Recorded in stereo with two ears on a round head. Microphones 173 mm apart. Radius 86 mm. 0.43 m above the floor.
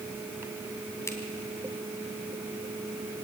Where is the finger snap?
15° left (ahead or behind), 3 m.